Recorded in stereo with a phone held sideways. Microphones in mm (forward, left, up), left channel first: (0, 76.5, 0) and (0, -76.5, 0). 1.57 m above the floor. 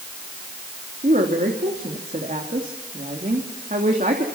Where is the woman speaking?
55° right (ahead or behind), 3 m.